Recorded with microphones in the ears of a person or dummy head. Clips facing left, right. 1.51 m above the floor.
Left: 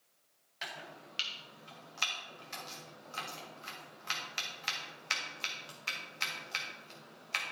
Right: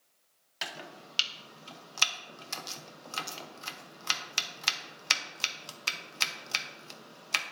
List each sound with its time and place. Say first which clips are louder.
0.6 s chopping: right 4 dB; 65° right (ahead or behind), 0.9 m